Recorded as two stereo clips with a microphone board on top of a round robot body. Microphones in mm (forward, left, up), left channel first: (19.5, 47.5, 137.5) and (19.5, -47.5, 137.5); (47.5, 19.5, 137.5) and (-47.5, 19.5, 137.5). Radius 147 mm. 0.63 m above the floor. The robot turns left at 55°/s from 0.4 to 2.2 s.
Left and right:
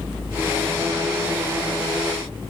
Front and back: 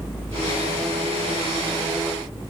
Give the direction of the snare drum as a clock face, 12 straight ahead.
No snare drum in this recording.